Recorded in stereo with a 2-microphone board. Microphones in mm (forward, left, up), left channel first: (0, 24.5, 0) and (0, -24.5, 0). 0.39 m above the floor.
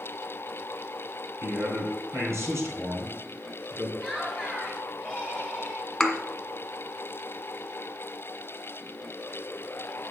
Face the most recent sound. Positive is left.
turn(degrees=5)  # may be behind; listen again after turning